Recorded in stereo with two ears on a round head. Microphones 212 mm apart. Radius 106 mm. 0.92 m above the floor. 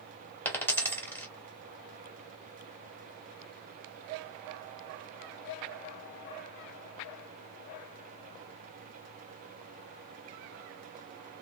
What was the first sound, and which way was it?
A dropped coin, 10° left (ahead or behind).